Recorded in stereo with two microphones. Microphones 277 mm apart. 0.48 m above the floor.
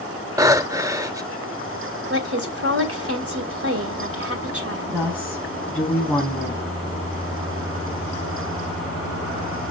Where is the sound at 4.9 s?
5° left (ahead or behind), 4.5 m.